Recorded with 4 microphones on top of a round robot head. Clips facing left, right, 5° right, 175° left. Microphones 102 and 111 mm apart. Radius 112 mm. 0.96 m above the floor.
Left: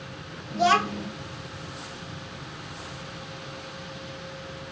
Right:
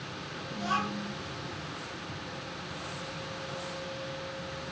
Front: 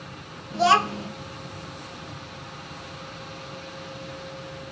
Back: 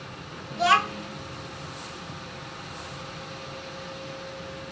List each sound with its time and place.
0.5 s a child speaking: 60° left, 1.5 m